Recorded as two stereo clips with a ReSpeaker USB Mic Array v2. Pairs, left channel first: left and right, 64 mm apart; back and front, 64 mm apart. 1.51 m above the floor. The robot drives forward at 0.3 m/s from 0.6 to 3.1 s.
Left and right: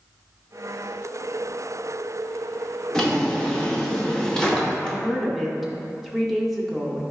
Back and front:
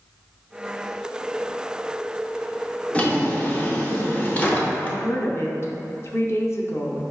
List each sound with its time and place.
2.9 s a drawer: 155° left, 0.6 m; by 5.0 s 160° left, 0.7 m
4.8 s a woman speaking: 175° right, 0.6 m